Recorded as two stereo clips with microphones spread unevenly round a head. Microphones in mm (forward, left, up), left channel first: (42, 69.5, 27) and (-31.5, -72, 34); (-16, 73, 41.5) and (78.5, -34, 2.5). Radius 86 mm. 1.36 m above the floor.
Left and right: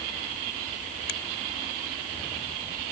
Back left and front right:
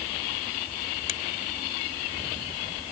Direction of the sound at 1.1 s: 95° left.